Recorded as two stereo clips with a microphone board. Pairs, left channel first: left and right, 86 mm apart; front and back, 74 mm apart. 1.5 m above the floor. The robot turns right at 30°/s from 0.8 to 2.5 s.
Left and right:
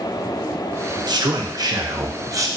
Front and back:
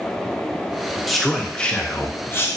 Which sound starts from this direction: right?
A man speaking, at 1.1 s.